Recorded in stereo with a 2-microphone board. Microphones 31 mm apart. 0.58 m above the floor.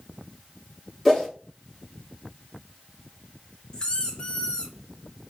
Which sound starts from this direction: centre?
A whoosh, at 1.1 s.